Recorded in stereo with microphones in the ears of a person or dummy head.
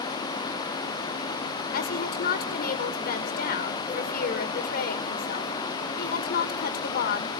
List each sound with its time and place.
1.7 s a woman speaking: 45° left (ahead or behind), 2 m